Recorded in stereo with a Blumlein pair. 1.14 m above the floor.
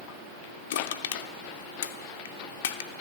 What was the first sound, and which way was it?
Crushing, 60° left.